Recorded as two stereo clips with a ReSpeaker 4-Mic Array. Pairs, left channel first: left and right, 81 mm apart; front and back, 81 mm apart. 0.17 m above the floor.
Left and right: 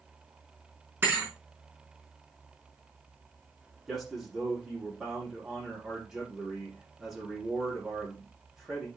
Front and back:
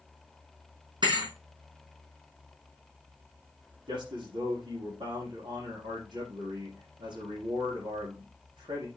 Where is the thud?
155° right, 4.5 m.